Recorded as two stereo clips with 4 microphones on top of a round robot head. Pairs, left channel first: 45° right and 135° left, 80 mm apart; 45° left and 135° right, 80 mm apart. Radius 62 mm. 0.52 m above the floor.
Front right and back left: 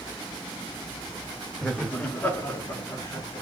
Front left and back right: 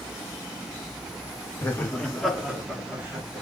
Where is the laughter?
40° left, 0.7 m; by 3.4 s 80° right, 1.1 m.